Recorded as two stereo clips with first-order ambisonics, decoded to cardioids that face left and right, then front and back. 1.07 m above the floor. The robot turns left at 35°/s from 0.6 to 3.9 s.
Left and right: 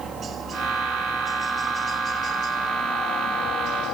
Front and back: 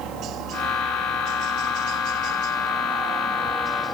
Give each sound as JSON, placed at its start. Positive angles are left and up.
{"t": 0.0, "sound": "a helicopter", "azimuth_deg": -145}